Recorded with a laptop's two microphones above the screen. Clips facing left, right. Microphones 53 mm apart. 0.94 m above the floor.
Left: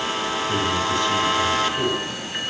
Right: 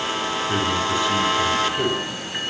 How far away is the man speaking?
About 7.5 m.